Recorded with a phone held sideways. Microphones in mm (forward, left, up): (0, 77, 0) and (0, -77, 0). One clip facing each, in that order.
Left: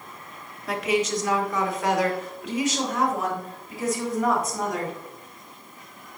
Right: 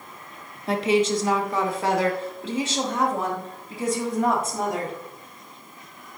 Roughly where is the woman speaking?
Right.